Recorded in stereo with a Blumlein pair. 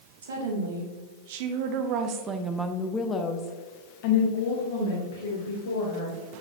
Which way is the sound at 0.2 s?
65° right.